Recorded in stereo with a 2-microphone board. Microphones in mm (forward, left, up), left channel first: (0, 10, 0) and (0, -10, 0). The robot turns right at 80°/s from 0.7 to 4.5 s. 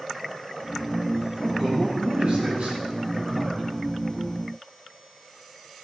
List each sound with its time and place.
1.4 s a man speaking: 165° left, 9 m; by 3.7 s 15° right, 9 m